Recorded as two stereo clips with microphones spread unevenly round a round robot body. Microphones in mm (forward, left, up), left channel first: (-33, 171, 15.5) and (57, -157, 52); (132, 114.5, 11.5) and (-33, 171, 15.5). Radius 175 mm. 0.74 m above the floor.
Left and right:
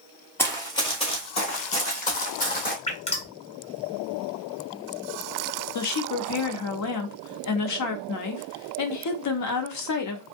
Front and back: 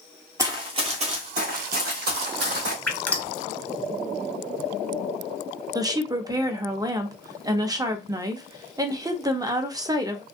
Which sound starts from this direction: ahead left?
Dripping, at 2.9 s.